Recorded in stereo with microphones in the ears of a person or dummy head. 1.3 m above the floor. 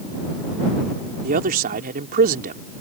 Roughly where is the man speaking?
Right.